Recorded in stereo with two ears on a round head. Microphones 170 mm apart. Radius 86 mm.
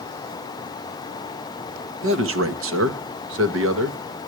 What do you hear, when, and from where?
2.0 s a man speaking: 75° right (ahead or behind), 1.6 m